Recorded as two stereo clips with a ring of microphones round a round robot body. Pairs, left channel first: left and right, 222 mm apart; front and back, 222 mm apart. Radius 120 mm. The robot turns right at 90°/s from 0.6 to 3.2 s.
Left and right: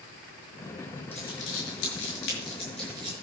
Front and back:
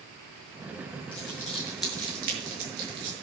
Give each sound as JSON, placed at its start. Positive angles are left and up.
{"t": 1.1, "sound": "crumpling", "azimuth_deg": 25, "distance_m": 6.0}